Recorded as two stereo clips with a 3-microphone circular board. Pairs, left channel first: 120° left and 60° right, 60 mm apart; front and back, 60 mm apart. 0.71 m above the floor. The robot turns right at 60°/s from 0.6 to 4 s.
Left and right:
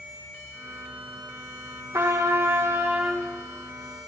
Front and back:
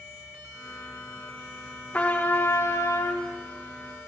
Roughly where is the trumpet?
Ahead right.